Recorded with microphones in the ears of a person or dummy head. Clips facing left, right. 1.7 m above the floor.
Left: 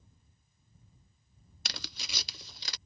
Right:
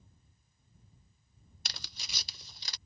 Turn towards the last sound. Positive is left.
turn(degrees=60)  # may be behind; listen again after turning